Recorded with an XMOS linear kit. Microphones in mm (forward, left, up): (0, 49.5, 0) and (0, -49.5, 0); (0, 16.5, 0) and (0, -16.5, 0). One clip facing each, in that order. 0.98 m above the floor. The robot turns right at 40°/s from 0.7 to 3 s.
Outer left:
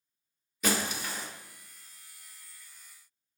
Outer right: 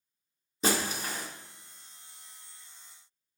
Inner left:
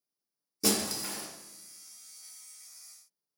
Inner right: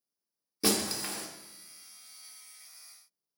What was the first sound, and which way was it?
Breaking glass, 30° right (ahead or behind).